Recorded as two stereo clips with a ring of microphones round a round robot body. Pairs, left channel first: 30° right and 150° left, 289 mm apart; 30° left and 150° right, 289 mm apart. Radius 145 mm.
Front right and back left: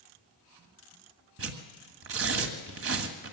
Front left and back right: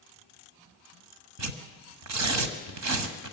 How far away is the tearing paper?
About 1.6 m.